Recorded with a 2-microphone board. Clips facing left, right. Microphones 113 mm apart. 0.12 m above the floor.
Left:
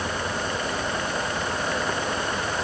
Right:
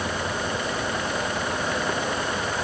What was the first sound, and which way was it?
Only background noise.